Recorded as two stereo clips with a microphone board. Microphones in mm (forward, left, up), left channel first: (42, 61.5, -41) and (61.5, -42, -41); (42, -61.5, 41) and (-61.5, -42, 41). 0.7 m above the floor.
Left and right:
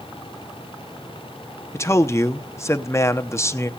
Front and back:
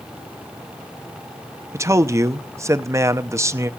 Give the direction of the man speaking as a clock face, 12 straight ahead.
7 o'clock.